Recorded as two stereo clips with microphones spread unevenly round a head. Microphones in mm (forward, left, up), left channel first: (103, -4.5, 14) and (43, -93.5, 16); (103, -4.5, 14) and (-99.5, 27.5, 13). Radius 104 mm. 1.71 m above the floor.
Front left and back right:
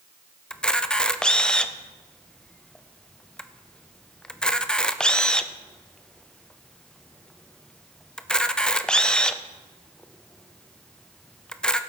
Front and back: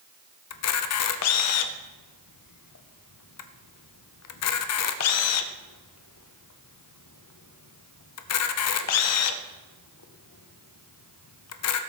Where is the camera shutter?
30° right, 0.7 m.